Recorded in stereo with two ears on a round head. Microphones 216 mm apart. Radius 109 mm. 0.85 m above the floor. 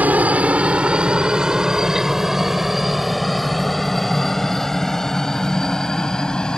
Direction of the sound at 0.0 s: 5° right (ahead or behind).